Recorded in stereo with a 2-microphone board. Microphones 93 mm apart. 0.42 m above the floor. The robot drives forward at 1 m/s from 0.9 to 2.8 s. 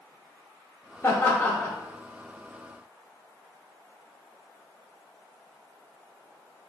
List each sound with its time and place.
1.0 s laughter: 25° left (ahead or behind), 0.9 m; by 1.8 s 20° left (ahead or behind), 1.3 m